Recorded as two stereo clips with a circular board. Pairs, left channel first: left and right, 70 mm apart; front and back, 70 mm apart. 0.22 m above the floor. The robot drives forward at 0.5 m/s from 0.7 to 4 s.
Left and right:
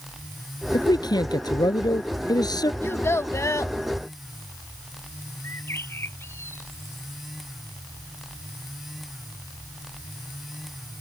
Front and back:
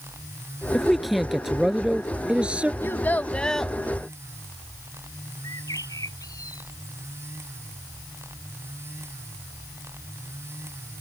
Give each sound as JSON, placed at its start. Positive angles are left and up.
{"t": 0.7, "sound": "a man speaking", "azimuth_deg": 85}
{"t": 2.8, "sound": "a child speaking", "azimuth_deg": 45}
{"t": 5.4, "sound": "a bird", "azimuth_deg": 35}